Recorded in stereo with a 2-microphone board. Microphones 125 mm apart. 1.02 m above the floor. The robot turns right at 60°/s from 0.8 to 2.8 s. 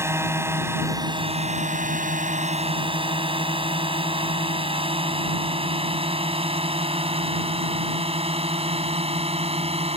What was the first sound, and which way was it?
A drone, 20° right (ahead or behind).